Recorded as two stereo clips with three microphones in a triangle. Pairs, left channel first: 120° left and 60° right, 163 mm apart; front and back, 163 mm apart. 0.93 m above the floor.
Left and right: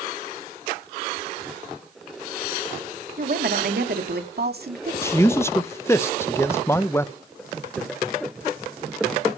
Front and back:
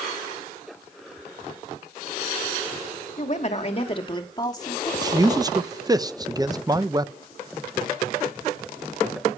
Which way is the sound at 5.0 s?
170° left.